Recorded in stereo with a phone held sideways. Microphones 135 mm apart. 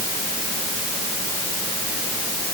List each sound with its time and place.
Only background noise.